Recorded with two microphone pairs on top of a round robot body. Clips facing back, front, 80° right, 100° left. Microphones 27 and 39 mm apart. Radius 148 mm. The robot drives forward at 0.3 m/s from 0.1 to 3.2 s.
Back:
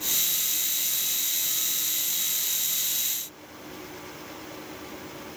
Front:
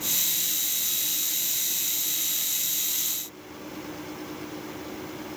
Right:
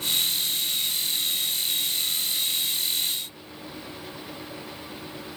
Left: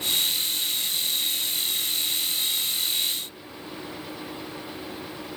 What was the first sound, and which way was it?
Only background noise.